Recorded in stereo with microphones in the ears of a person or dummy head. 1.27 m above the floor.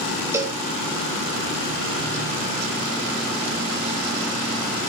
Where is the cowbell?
15° right (ahead or behind), 1.2 m.